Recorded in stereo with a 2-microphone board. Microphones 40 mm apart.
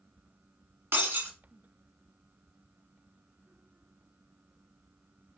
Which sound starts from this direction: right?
Breaking glass, at 0.9 s.